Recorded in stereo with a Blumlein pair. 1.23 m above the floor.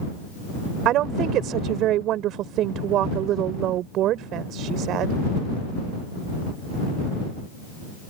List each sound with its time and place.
0.8 s a woman speaking: 35° right